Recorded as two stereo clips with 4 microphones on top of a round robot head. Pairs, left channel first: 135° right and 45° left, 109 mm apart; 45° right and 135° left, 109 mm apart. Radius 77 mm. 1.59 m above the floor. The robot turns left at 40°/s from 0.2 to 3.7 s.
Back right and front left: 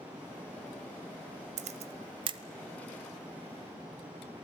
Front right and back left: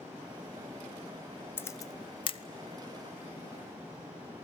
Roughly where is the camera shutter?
Ahead left.